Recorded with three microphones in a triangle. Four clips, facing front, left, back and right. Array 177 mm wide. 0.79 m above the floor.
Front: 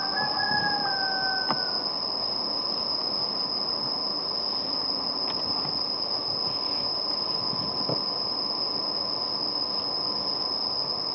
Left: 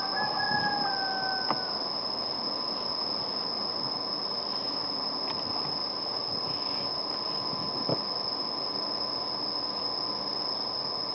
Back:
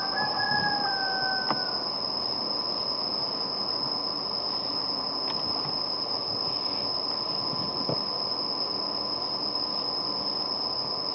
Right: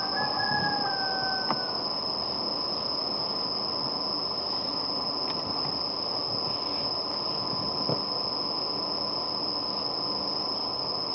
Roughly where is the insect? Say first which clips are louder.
Right 1 dB, even; ahead right.